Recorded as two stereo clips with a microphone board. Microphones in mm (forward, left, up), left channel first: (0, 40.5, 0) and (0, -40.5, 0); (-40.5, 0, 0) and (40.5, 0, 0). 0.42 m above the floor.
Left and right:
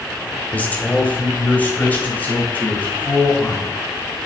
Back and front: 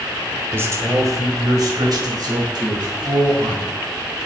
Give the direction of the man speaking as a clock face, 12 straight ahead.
11 o'clock.